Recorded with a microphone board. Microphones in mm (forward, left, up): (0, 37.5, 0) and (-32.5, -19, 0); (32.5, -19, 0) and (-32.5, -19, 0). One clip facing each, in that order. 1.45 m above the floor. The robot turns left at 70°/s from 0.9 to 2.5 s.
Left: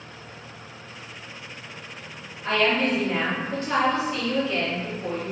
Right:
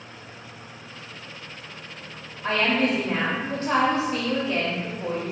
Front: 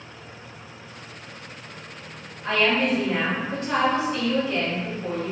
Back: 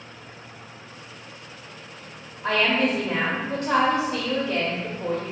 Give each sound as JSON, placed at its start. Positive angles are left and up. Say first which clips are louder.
{"t": 2.4, "sound": "a woman speaking", "louder": "even, even", "azimuth_deg": -155, "distance_m": 0.8}